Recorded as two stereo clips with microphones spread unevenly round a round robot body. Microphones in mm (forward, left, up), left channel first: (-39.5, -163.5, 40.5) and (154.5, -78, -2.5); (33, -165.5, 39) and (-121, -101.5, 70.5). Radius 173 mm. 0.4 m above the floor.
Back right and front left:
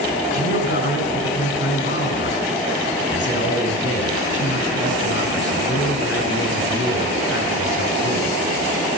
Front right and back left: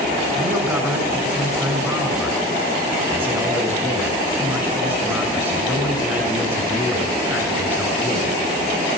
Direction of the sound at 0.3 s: 120° right.